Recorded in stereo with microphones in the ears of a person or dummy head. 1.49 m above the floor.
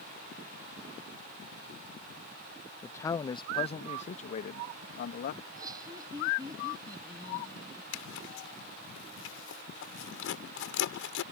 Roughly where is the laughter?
Right.